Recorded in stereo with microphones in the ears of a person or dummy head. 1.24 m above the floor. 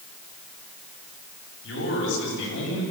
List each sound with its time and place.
1.6 s a man speaking: 75° left (ahead or behind), 7.5 m